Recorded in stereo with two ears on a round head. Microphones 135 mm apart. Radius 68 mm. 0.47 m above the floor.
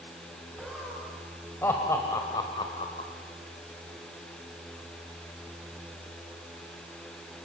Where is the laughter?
Centre (ahead or behind), 3 m; by 3.1 s 40° left (ahead or behind), 2.0 m.